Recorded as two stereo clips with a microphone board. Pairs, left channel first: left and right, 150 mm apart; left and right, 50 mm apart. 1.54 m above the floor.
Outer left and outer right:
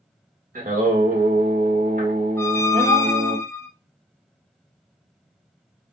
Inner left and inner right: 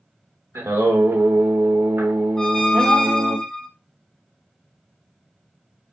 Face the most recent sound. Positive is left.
turn(degrees=15)  # may be behind; listen again after turning